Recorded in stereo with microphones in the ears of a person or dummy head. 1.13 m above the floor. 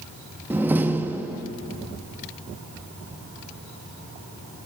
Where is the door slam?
10° right (ahead or behind), 0.8 m.